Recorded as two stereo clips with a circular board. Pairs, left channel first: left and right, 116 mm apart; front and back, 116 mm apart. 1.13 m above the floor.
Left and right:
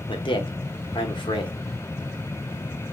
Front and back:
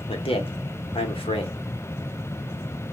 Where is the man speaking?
40° left, 0.9 m.